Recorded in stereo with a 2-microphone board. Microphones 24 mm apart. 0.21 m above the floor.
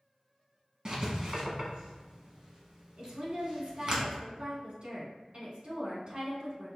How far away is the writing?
About 1.1 m.